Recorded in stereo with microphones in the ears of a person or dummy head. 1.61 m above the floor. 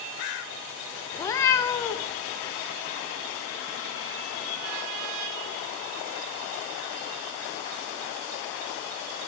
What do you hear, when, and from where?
1.1 s a cat meowing: 15° left (ahead or behind), 0.9 m